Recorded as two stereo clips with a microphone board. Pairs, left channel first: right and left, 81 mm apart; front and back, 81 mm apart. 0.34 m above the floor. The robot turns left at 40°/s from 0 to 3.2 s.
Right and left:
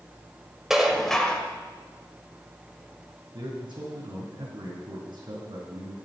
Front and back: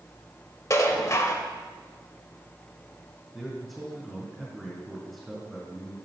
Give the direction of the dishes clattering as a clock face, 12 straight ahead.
12 o'clock.